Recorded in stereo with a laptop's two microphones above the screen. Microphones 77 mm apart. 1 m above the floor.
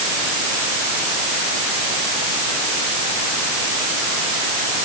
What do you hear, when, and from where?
Only background noise.